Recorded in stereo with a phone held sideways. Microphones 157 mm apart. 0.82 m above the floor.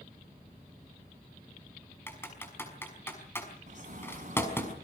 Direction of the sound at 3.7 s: 55° right (ahead or behind).